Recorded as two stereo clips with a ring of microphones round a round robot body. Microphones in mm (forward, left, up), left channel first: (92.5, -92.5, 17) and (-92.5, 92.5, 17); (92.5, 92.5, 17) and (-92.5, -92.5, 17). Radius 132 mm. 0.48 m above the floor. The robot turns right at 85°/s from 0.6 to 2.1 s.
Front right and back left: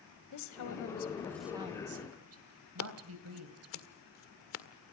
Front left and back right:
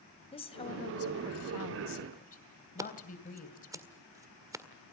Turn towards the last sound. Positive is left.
turn(degrees=-60)